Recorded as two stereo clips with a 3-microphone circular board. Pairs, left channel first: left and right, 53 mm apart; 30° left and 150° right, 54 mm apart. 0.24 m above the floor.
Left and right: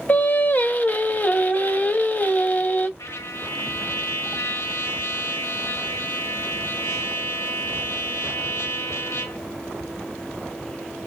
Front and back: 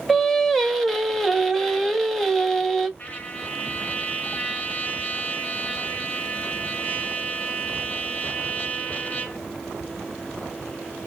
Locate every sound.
0.1 s singing: 110° left, 0.5 m
3.0 s a trumpet: 85° left, 0.7 m